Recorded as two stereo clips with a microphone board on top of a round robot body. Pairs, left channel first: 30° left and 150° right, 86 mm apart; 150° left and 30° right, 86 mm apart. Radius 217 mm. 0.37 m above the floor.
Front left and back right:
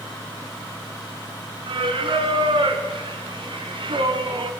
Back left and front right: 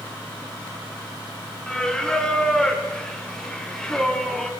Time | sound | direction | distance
1.7 | singing | 125° right | 1.8 m